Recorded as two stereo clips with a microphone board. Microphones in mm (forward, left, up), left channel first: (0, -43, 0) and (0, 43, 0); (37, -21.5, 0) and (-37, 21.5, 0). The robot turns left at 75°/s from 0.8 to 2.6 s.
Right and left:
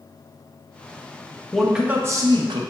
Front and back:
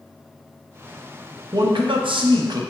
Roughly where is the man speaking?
Behind.